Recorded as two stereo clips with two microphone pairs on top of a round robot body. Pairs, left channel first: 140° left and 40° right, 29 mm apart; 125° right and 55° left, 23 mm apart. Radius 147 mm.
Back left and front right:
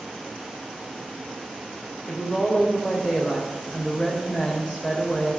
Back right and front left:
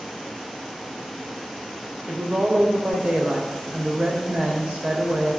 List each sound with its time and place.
2.1 s a woman speaking: 65° left, 2.5 m